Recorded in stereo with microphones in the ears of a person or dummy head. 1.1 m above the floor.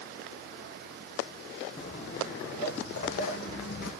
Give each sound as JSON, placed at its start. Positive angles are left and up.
{"t": 1.8, "sound": "footsteps", "side_deg": 40, "distance_m": 2.0}